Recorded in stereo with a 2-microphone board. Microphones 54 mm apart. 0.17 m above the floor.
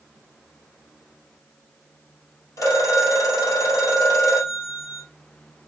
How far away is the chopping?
No chopping in this recording.